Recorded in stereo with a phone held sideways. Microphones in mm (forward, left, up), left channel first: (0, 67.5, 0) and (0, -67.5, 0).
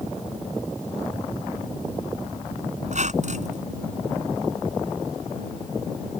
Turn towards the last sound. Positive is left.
turn(degrees=-60)  # may be behind; listen again after turning